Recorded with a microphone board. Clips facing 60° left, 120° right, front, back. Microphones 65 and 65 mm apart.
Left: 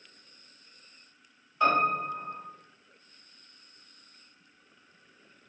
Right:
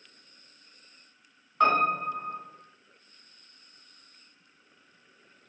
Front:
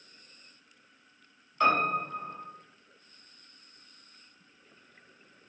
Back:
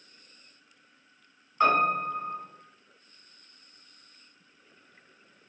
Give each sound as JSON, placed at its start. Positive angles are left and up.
{"t": 1.6, "sound": "a piano", "azimuth_deg": -115, "distance_m": 1.4}